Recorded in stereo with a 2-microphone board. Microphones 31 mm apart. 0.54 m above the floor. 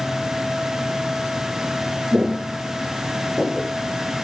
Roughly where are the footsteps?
Centre.